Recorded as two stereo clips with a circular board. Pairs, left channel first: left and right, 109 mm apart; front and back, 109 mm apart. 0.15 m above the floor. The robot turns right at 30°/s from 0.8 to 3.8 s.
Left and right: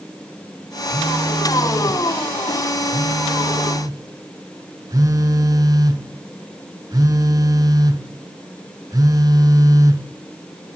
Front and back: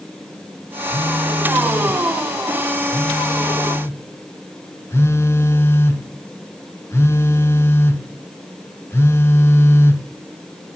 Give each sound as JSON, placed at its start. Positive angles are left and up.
{"t": 0.9, "sound": "a phone buzzing", "azimuth_deg": -140, "distance_m": 1.4}